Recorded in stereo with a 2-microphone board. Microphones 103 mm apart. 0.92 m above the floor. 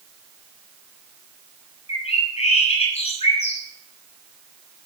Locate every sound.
1.9 s a bird: 65° left (ahead or behind), 6 m